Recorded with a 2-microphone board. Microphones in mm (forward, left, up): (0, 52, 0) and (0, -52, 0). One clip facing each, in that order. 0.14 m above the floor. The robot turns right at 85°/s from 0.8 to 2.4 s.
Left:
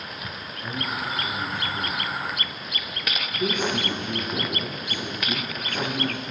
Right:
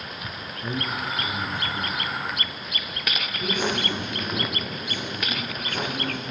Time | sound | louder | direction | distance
0.6 | a man speaking | right 1 dB | 70° right (ahead or behind) | 3.5 m